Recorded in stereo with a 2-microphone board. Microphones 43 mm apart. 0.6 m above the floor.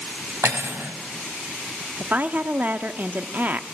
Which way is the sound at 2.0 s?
45° right (ahead or behind).